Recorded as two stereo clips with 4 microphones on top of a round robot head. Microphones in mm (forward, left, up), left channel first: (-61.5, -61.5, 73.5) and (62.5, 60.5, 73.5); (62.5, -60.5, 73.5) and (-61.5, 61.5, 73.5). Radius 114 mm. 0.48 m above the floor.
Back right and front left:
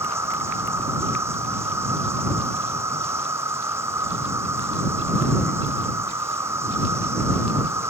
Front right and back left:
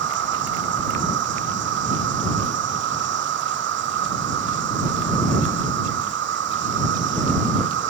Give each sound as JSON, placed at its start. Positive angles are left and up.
{"t": 0.0, "sound": "an insect", "azimuth_deg": 120}